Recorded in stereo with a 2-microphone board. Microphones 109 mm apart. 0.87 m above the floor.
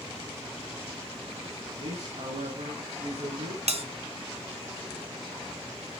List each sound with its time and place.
1.8 s a man speaking: 80° right, 9 m
3.7 s a bell: 70° right (ahead or behind), 1.1 m